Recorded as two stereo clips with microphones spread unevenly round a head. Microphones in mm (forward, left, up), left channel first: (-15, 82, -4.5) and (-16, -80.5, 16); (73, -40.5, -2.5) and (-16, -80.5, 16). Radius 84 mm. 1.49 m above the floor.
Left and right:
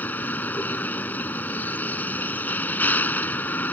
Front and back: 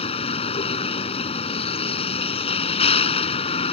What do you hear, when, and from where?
0.0 s a vehicle: 10° left